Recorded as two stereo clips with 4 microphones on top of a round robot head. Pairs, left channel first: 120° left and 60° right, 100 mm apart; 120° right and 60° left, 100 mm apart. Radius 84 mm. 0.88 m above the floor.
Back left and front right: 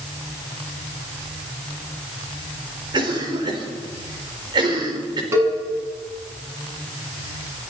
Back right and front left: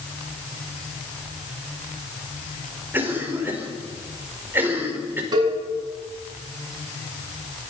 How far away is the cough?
About 4.5 m.